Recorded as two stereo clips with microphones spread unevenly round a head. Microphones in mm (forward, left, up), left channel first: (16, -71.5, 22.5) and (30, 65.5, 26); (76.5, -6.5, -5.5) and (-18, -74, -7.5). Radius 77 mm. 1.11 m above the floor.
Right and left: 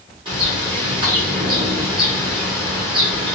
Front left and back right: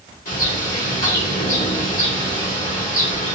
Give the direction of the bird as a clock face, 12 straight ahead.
11 o'clock.